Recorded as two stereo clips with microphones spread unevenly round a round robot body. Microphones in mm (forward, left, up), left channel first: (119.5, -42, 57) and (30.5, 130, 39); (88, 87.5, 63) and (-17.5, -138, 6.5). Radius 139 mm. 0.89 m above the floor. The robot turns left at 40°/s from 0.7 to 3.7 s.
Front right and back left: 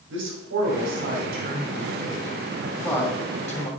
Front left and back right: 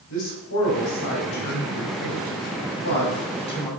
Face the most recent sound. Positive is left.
turn(degrees=-15)